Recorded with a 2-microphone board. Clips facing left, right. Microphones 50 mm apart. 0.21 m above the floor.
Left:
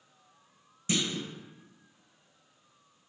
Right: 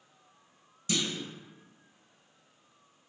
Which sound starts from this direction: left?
A clunk, at 0.9 s.